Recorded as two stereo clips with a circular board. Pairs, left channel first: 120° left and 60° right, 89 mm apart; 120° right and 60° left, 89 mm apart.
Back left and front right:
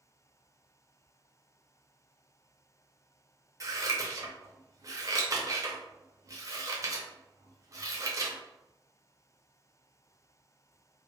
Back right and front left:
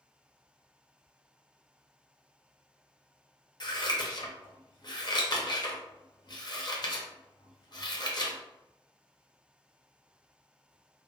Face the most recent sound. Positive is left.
turn(degrees=-100)